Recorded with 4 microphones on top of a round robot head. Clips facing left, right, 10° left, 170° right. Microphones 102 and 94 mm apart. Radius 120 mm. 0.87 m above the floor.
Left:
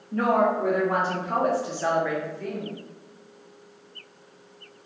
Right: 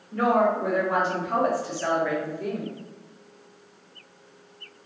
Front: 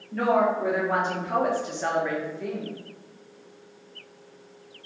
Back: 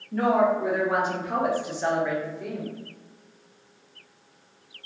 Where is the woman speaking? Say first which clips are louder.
Even, back 1 dB; 110° left, 1.6 m; by 2.7 s 80° right, 1.0 m.